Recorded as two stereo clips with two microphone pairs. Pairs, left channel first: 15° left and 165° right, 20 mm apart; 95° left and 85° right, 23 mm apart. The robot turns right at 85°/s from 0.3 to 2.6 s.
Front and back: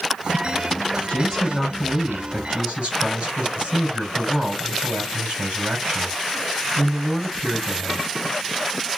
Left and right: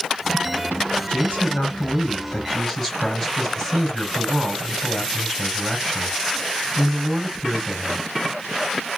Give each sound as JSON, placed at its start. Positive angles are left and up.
{"t": 1.1, "sound": "a man speaking", "azimuth_deg": 35, "distance_m": 4.0}